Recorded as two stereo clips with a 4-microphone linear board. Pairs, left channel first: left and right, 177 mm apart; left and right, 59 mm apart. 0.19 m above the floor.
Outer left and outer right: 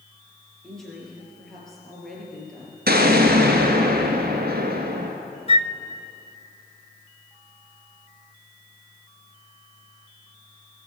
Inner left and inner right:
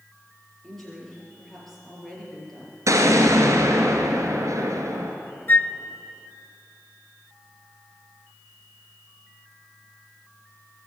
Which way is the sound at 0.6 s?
Centre (ahead or behind).